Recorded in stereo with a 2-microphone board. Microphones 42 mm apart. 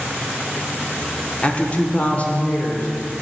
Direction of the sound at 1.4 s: 30° left (ahead or behind).